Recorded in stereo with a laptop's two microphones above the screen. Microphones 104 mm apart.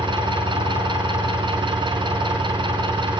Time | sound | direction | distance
0.0 | an engine running | 50° right (ahead or behind) | 3.5 m